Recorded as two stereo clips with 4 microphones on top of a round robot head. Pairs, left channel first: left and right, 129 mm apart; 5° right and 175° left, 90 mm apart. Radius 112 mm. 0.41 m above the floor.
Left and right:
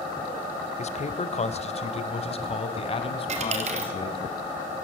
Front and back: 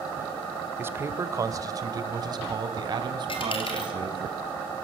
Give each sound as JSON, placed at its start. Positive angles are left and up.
{"t": 0.8, "sound": "a man speaking", "azimuth_deg": 110, "distance_m": 1.8}
{"t": 3.3, "sound": "a dropped coin", "azimuth_deg": -45, "distance_m": 3.0}